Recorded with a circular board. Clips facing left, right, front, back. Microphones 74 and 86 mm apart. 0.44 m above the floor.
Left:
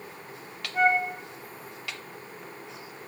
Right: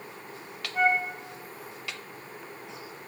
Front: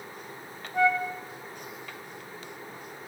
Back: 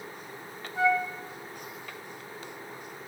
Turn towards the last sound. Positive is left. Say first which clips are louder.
# left 2 dB, front 1 dB
turn(degrees=0)